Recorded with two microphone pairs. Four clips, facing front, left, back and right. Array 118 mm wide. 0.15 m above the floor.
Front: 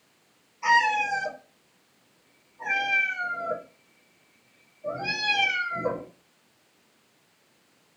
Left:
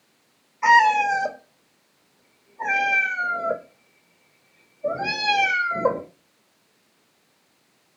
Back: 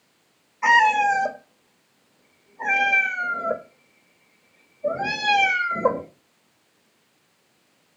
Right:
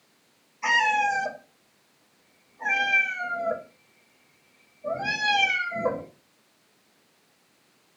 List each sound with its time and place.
0.6 s a cat meowing: 130° left, 0.7 m